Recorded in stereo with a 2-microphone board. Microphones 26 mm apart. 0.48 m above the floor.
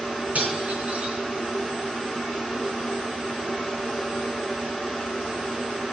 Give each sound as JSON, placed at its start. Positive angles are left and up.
{"t": 0.3, "sound": "cutlery clinking", "side_deg": -65, "distance_m": 3.5}